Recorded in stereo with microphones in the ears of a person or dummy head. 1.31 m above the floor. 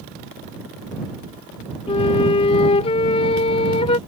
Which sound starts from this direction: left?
A flute, at 1.9 s.